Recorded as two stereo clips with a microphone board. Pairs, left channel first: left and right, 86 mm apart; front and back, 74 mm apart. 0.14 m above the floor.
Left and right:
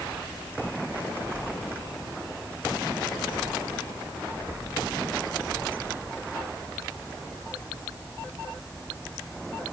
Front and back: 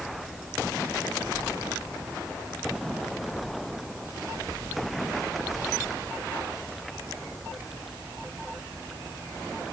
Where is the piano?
I don't hear a piano.